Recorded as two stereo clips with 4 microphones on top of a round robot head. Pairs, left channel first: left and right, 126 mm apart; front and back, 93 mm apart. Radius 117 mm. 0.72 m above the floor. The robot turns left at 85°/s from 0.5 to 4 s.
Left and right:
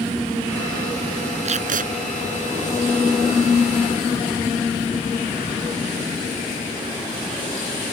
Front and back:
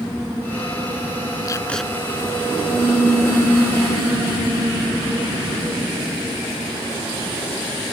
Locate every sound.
1.4 s tape being pulled: 55° right; by 1.9 s 95° right